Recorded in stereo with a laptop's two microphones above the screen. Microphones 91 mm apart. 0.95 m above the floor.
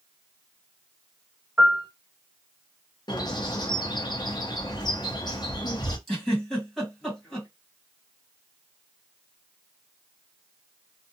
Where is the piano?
15° right (ahead or behind), 1.3 m.